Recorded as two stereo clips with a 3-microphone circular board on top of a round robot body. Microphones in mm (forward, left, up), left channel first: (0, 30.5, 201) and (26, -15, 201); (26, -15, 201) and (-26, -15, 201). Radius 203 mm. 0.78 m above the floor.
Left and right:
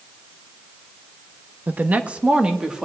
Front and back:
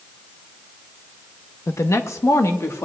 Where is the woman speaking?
10° right, 0.9 m; by 2.9 s 15° left, 1.5 m.